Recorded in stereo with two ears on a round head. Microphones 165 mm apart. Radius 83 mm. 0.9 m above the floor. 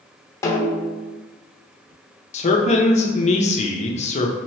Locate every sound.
0.4 s a snare drum: 15° left (ahead or behind), 0.8 m
2.3 s a man speaking: 35° left (ahead or behind), 0.6 m